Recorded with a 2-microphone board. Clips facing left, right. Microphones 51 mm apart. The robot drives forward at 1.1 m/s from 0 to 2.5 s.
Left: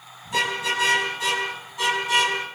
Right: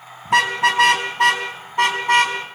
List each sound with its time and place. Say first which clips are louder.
0.2 s a car horn: right 8 dB; 85° right, 3.5 m; by 2.4 s 55° right (ahead or behind), 4.5 m